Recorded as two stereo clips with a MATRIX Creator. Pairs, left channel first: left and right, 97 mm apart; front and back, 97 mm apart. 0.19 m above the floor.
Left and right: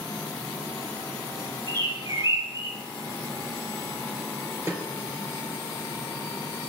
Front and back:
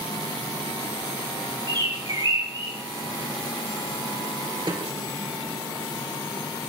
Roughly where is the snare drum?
Behind right.